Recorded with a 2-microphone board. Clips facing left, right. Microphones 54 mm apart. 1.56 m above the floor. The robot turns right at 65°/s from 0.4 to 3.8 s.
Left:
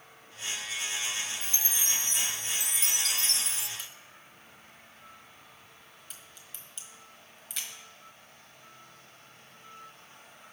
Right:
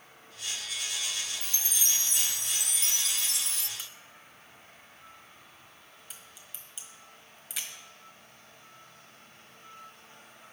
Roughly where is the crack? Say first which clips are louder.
Even; centre.